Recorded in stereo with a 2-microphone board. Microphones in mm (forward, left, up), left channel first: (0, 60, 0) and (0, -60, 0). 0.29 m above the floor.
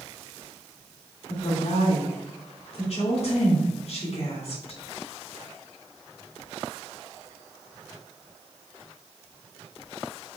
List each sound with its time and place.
1.3 s a woman speaking: 65° left (ahead or behind), 3 m